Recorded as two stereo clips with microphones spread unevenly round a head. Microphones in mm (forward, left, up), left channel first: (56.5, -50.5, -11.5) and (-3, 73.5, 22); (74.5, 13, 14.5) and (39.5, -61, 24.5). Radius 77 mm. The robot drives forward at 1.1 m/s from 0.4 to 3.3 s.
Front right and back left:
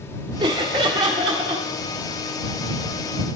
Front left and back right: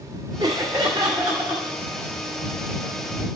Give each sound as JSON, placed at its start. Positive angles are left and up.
{"t": 0.4, "sound": "laughter", "azimuth_deg": 180, "distance_m": 0.8}